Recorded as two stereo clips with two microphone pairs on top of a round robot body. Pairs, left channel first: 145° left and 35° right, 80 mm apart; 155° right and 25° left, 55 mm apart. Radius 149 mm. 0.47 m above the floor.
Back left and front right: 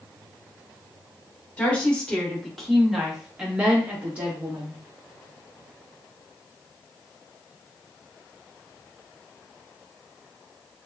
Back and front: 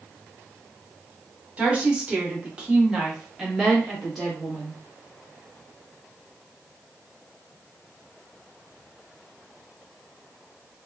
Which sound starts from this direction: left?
A woman speaking, at 1.6 s.